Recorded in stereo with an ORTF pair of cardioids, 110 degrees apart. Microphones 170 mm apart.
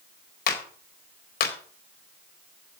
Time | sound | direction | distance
0.5 | a clap | 65° left | 4 m